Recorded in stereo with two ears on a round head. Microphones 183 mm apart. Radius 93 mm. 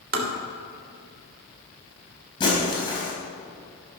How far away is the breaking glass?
About 4.5 m.